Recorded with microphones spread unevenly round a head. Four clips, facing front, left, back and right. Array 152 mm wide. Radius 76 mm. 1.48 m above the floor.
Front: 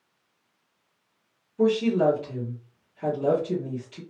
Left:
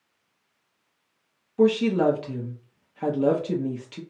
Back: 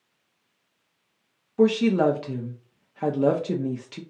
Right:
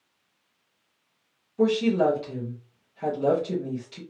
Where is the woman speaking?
165° left, 0.7 m.